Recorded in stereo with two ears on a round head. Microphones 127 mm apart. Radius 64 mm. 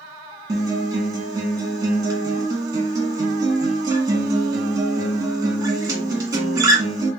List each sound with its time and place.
0.5 s a guitar: 25° right (ahead or behind), 1.3 m